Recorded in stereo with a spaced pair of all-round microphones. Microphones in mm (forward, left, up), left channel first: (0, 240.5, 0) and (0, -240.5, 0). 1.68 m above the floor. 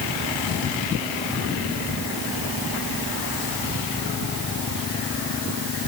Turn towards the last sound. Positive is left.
No sound to turn to.